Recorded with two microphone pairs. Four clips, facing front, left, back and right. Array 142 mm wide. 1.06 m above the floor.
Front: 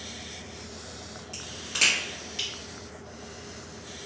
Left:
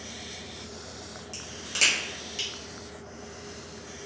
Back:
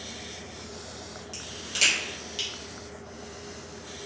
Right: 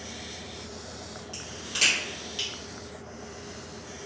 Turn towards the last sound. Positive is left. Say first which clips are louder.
# left 1 dB, front 2 dB
turn(degrees=35)